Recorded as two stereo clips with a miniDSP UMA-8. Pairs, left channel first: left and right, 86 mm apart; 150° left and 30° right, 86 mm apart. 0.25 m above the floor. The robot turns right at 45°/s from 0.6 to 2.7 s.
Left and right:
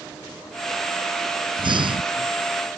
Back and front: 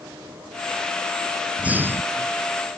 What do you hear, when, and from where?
1.6 s breathing: 105° right; by 2.3 s 75° right